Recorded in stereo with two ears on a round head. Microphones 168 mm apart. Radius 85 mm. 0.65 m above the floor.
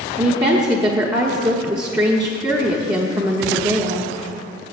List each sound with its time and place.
0.2 s a woman speaking: 20° right (ahead or behind), 1.0 m